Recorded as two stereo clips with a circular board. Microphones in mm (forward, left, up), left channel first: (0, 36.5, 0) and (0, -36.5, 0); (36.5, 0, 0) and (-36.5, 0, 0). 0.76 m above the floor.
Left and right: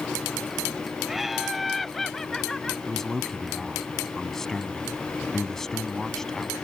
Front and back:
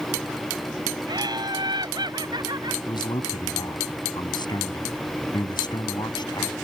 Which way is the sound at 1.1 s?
175° right.